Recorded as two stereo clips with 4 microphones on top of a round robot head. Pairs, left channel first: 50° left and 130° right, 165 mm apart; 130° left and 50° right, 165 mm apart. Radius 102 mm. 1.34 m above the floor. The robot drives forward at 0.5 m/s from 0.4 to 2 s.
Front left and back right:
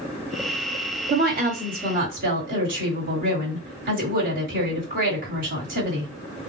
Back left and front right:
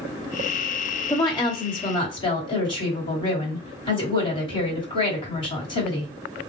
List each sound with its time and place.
1.1 s a woman speaking: 160° right, 1.2 m; by 6.1 s 165° right, 1.6 m